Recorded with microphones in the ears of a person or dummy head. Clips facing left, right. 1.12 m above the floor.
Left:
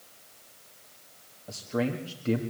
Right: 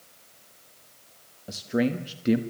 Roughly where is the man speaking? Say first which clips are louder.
Right 4 dB; centre.